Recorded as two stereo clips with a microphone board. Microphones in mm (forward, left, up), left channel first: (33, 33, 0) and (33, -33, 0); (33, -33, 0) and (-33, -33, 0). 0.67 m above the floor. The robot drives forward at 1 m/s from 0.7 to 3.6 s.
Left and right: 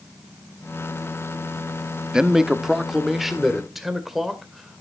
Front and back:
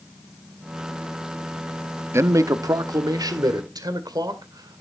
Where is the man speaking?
165° right, 0.6 m; by 4.8 s 175° right, 1.9 m.